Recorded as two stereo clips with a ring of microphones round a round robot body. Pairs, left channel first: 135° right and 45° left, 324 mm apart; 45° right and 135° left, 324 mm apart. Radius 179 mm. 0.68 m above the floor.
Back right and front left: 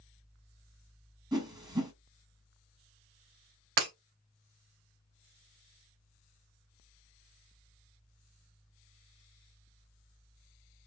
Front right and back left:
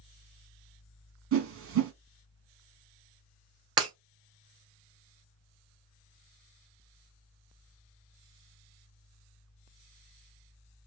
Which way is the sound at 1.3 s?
115° left.